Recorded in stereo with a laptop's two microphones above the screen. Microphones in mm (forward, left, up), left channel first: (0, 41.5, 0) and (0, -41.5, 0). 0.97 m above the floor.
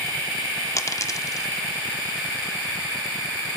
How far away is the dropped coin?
About 0.6 m.